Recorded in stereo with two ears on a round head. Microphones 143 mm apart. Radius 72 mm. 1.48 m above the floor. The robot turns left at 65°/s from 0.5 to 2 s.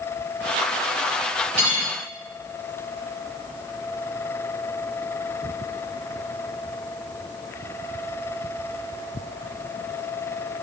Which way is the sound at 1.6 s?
45° right (ahead or behind).